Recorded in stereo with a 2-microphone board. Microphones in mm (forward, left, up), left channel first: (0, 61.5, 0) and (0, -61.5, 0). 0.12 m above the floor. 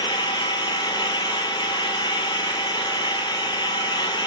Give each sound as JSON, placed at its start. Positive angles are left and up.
{"t": 0.0, "sound": "an engine running", "side_deg": 40, "distance_m": 1.1}